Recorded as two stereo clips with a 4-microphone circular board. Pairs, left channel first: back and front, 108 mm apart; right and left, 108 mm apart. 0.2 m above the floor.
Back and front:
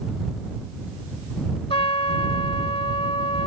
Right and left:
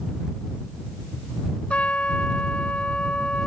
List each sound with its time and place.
1.7 s a trumpet: 170° right